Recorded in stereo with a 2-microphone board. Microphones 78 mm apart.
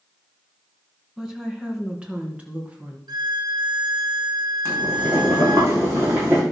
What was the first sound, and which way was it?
A woman speaking, 10° right (ahead or behind).